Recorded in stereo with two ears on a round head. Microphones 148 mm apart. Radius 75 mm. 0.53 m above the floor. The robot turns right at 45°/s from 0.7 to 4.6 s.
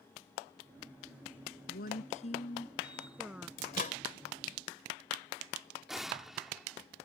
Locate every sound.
1.7 s a woman speaking: 110° left; by 3.5 s 170° right
3.6 s a microwave: 60° left (ahead or behind); by 4.0 s 45° left (ahead or behind)
5.9 s an explosion: centre (ahead or behind)